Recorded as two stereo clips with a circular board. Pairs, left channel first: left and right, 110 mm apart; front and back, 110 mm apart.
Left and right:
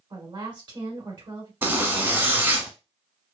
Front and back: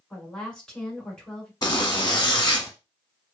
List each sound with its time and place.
0.1 s a woman speaking: 80° right, 1.4 m
1.6 s a zipper: 30° right, 1.0 m